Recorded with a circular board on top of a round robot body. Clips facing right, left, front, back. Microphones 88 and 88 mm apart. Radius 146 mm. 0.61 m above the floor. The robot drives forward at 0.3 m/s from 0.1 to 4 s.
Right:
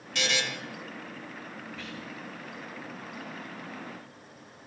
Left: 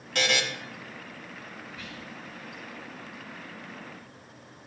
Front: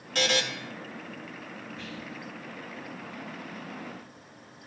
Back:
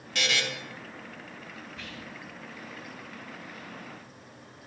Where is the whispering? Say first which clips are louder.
Right 2 dB, front 3 dB; 165° left, 2.5 m.